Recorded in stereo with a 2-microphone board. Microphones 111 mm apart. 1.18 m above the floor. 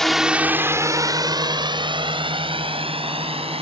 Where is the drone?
5° left (ahead or behind); by 3.6 s 60° right (ahead or behind).